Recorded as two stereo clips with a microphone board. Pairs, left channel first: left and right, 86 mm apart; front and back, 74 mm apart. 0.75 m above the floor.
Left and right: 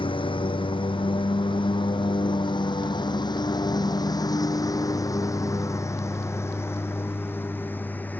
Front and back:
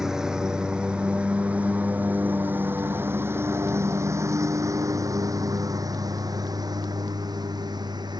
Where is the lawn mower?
95° left; by 8.2 s 160° left.